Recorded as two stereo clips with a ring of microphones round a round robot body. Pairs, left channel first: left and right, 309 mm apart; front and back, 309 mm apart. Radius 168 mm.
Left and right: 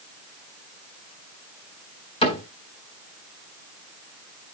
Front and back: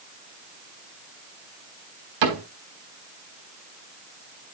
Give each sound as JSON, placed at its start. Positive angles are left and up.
{"t": 2.2, "sound": "a cupboard door", "azimuth_deg": 165, "distance_m": 4.0}